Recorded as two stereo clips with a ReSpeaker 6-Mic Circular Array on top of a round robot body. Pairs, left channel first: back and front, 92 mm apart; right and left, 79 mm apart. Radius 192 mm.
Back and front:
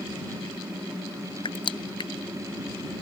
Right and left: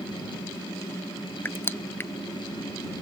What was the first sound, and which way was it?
Crushing, 150° right.